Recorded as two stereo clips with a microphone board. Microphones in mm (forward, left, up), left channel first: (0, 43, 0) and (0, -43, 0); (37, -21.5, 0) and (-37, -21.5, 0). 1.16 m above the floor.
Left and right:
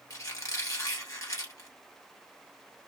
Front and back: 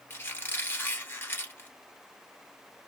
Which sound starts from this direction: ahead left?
A squeak, at 0.1 s.